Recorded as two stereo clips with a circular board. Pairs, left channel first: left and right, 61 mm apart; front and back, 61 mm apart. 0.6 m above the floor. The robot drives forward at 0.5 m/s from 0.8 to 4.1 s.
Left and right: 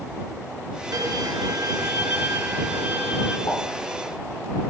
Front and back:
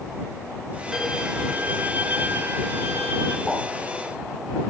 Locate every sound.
0.9 s a violin: 95° right, 1.0 m; by 3.4 s 145° right, 1.6 m
3.5 s a pop: 80° left, 8 m